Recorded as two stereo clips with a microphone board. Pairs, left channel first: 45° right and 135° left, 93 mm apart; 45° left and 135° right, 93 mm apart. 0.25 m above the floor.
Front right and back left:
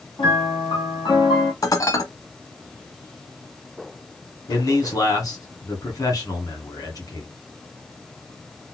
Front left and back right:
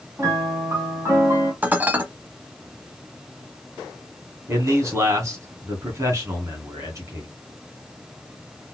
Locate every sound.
0.2 s a piano: 75° right, 2.5 m
1.6 s dishes clattering: 70° right, 1.0 m
4.5 s a man speaking: 85° right, 2.5 m